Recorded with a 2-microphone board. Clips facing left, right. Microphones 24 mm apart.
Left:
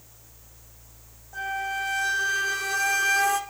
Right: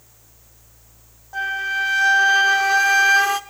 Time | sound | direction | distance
1.3 | a flute | 40° right (ahead or behind) | 1.0 m